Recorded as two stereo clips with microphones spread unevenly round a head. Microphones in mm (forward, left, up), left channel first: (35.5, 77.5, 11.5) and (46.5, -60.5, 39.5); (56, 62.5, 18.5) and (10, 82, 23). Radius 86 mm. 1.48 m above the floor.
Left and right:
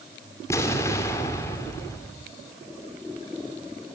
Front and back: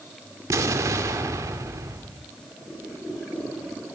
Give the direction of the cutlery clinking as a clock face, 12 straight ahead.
I don't hear cutlery clinking.